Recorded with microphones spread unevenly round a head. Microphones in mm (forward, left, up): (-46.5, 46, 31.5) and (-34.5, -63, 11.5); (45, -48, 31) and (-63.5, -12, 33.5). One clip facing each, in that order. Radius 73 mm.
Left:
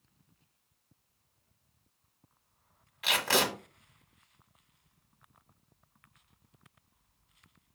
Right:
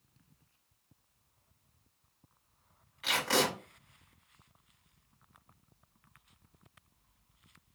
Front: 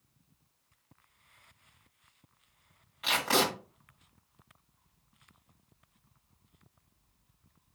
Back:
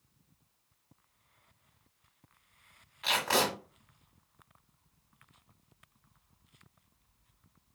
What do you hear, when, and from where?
3.0 s tape being pulled: 70° left, 1.5 m